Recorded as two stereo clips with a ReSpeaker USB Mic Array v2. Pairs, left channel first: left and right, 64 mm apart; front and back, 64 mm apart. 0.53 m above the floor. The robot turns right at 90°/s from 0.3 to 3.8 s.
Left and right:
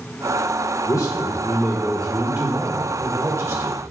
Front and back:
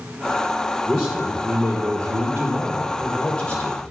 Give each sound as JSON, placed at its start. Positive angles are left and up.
{"t": 0.9, "sound": "a man speaking", "azimuth_deg": 70, "distance_m": 1.4}